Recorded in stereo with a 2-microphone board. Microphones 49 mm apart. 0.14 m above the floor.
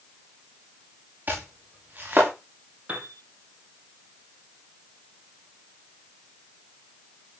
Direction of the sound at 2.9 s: 35° right (ahead or behind).